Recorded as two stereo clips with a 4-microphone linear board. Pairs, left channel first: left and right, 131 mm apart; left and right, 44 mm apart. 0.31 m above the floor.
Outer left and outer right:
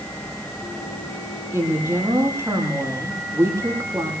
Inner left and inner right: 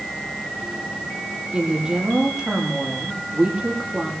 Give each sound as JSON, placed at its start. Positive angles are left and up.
{"t": 1.5, "sound": "a woman speaking", "side_deg": -20, "distance_m": 10.0}